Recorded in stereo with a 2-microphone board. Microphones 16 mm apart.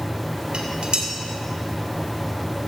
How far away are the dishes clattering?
About 2.5 m.